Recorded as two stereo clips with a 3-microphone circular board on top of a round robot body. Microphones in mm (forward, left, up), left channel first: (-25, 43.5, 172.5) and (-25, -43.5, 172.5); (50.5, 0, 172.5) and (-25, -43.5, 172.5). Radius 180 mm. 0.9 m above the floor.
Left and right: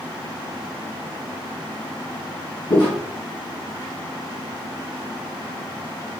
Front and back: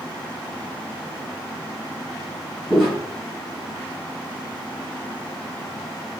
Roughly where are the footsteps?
Behind left.